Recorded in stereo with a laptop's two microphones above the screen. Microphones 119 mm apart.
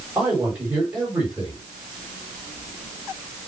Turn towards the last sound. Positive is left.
turn(degrees=-15)  # may be behind; listen again after turning